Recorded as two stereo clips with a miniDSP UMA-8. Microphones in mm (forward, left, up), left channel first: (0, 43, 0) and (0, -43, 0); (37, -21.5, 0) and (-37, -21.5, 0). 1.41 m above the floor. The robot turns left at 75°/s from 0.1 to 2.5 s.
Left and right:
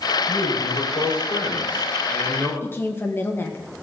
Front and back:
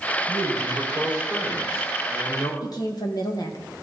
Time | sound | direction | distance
0.3 | a man speaking | 175° left | 6 m
2.6 | a woman speaking | 25° left | 1.9 m